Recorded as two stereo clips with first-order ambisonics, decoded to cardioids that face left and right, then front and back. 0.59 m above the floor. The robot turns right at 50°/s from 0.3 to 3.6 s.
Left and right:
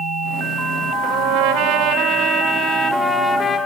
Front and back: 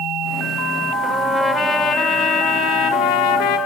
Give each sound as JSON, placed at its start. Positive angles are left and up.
{"t": 1.0, "sound": "a trumpet", "azimuth_deg": -105, "distance_m": 0.9}